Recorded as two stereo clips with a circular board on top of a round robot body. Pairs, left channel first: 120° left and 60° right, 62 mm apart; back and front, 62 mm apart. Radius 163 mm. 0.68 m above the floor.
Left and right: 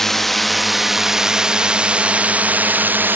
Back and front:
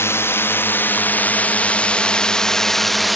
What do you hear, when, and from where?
0.0 s a drone: 155° right; by 3.2 s 90° right